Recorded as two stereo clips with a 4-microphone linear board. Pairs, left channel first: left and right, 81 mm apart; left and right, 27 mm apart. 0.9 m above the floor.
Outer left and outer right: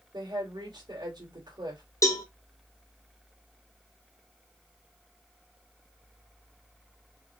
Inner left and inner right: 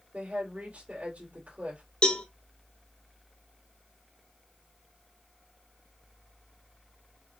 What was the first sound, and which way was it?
A woman speaking, 65° right (ahead or behind).